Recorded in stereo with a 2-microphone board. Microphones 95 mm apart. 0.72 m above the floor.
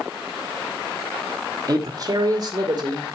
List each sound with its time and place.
1.7 s a man speaking: 40° right (ahead or behind), 1.5 m; by 3.1 s 45° right (ahead or behind), 2.5 m